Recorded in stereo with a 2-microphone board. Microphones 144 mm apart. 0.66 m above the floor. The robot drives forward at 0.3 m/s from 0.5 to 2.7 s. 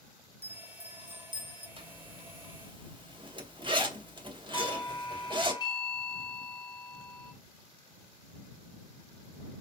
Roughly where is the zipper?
Right.